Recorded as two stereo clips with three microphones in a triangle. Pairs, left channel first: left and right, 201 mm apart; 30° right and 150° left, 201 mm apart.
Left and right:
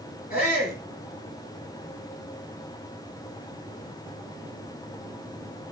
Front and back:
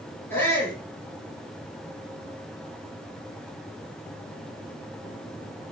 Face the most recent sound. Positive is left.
turn(degrees=50)